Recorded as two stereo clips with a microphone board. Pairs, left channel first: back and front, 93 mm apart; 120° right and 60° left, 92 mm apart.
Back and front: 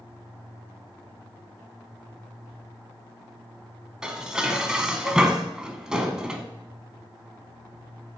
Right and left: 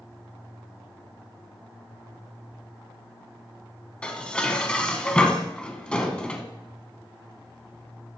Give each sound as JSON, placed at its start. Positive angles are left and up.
{"t": 4.0, "sound": "dishes clattering", "azimuth_deg": -65, "distance_m": 0.8}